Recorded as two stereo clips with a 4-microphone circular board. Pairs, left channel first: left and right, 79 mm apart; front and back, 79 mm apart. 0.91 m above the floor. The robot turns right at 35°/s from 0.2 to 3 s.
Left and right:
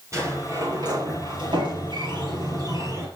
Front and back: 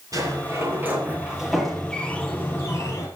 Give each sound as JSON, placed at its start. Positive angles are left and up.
{"t": 0.1, "sound": "a sliding door", "azimuth_deg": -140, "distance_m": 6.0}